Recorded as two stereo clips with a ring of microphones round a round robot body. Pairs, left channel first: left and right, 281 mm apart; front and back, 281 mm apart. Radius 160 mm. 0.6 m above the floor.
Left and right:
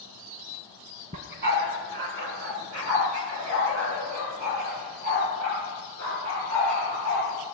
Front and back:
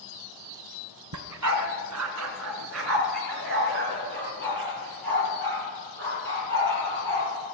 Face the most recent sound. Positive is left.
turn(degrees=-130)